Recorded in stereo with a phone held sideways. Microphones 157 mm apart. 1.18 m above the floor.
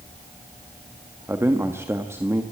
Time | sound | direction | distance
1.3 | a man speaking | 15° right (ahead or behind) | 1.5 m